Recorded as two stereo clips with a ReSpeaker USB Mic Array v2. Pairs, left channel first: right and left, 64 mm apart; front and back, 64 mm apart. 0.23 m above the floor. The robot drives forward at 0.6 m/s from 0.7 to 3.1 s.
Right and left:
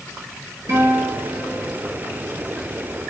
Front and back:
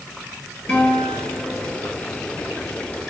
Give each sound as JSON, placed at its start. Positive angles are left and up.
{"t": 0.7, "sound": "a guitar", "azimuth_deg": 75, "distance_m": 3.0}